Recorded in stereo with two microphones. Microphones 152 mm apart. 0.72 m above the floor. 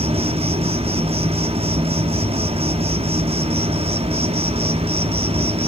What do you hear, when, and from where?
0.0 s an insect: 40° right (ahead or behind), 1.1 m